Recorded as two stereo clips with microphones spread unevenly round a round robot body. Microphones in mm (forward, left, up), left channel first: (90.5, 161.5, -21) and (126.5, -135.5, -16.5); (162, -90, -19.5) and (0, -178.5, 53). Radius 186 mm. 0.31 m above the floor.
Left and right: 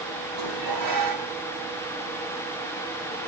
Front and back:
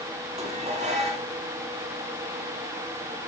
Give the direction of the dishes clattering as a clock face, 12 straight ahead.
3 o'clock.